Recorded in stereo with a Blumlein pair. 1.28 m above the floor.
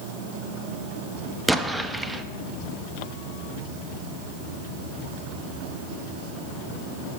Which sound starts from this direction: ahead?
An explosion, at 1.5 s.